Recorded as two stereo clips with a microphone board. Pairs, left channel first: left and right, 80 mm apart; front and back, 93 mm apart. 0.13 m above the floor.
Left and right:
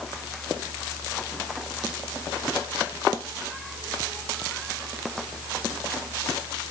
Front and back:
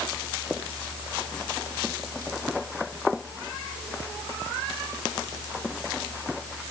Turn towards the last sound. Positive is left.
No sound to turn to.